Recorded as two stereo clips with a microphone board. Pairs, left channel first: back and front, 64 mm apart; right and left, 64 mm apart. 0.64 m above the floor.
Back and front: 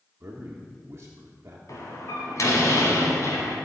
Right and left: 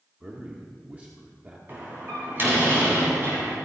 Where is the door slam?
145° left, 3 m.